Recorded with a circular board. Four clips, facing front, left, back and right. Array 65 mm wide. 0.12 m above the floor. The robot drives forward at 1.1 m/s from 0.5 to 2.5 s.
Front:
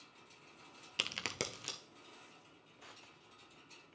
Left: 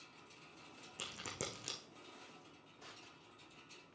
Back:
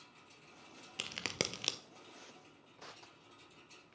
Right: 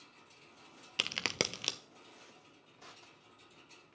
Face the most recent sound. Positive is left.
turn(degrees=-170)